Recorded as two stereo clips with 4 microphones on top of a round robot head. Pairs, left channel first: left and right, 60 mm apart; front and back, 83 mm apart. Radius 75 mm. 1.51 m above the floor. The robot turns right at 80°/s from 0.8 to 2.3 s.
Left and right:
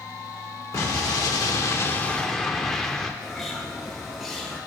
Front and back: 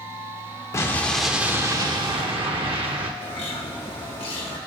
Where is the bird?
Straight ahead, 1.3 m.